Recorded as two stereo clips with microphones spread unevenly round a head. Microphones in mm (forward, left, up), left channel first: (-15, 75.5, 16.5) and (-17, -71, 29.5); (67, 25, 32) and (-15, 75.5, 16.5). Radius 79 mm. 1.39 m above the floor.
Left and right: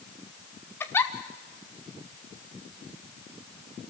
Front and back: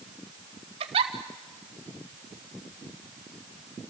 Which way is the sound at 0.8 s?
160° left.